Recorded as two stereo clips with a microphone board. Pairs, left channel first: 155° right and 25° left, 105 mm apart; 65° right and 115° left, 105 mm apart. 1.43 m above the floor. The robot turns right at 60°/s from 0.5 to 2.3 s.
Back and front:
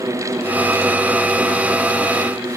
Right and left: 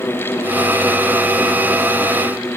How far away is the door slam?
No door slam in this recording.